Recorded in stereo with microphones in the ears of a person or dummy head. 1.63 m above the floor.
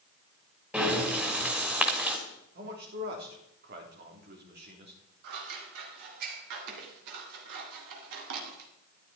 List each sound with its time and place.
0.7 s breathing: 10° right (ahead or behind), 2 m
2.5 s a man speaking: 45° right (ahead or behind), 3.5 m
5.2 s scissors: 65° right (ahead or behind), 2 m